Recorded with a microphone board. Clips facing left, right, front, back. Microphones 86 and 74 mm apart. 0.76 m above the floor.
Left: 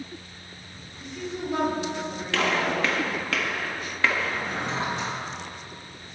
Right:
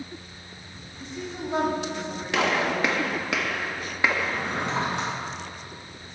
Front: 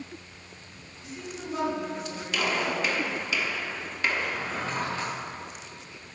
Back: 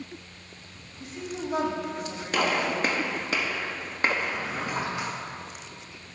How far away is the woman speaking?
About 4.5 m.